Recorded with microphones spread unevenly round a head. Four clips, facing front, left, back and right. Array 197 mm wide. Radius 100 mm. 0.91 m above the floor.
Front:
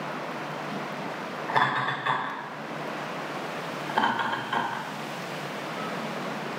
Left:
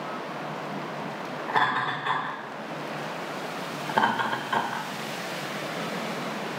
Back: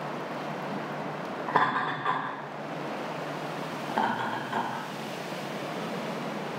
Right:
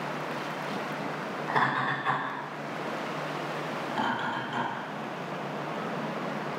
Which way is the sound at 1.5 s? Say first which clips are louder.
Left 2 dB, front 1 dB; 175° left.